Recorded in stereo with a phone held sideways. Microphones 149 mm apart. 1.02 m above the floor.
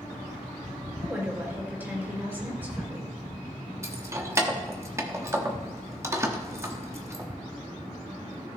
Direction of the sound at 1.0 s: 15° right (ahead or behind).